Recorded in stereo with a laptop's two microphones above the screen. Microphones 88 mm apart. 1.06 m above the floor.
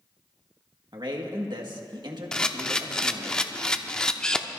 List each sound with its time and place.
0.9 s a man speaking: 65° right (ahead or behind), 1.8 m
2.3 s a camera shutter: 10° left (ahead or behind), 0.8 m